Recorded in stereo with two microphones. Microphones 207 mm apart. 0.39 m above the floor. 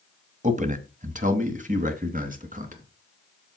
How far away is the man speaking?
About 1.8 m.